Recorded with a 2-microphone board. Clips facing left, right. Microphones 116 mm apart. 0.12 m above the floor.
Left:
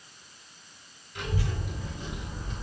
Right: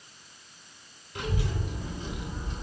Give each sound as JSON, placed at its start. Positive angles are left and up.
{"t": 1.1, "sound": "a child speaking", "side_deg": -50, "distance_m": 1.3}